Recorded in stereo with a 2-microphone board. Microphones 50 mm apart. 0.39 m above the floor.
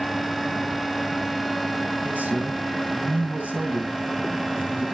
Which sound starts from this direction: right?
A man speaking, at 2.0 s.